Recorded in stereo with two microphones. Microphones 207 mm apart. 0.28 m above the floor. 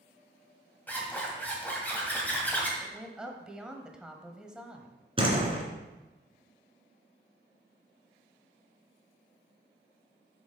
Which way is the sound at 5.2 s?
25° right (ahead or behind).